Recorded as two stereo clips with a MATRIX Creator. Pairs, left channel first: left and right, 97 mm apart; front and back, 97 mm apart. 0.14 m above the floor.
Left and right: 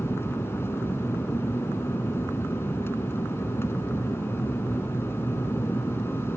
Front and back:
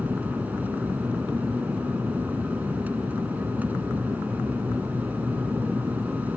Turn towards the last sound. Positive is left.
turn(degrees=125)